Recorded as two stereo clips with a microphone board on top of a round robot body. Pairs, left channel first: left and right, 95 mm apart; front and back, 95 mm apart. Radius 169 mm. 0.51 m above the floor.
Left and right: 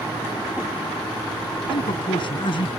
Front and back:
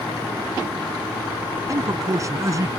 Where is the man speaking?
125° left.